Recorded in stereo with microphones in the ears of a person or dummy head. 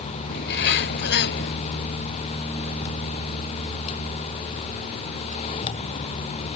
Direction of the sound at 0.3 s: 60° left (ahead or behind).